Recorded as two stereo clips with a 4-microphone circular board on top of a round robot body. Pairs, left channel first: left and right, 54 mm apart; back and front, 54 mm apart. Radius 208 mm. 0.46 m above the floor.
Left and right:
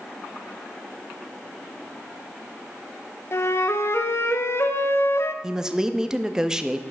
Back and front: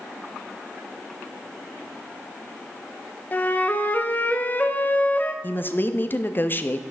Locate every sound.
3.3 s a flute: 125° left, 0.7 m
5.4 s a woman speaking: 160° right, 0.8 m